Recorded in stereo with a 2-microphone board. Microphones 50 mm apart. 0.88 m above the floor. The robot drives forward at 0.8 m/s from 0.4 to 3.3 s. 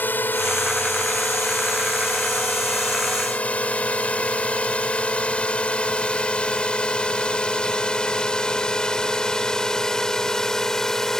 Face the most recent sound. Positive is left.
turn(degrees=5)  # may be behind; listen again after turning